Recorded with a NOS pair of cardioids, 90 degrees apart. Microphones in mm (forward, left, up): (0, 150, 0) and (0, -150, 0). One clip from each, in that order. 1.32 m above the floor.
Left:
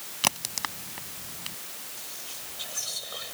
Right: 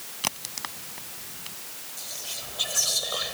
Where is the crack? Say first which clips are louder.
Left 4 dB; 30° left.